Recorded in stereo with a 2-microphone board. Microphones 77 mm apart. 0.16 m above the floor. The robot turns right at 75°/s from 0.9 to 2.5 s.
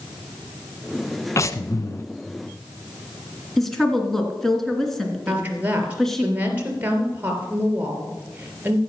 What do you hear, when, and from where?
1.4 s breathing: 65° left, 0.7 m; by 2.1 s 120° left, 0.7 m
3.6 s a woman speaking: 5° left (ahead or behind), 2.5 m
5.3 s a woman speaking: 20° right (ahead or behind), 3 m